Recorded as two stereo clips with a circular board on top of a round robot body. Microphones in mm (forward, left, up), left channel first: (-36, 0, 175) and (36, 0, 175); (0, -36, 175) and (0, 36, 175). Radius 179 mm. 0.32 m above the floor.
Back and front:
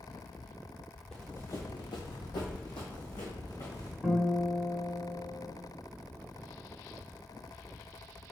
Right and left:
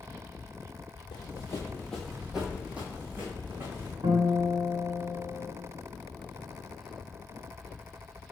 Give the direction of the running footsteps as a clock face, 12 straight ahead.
3 o'clock.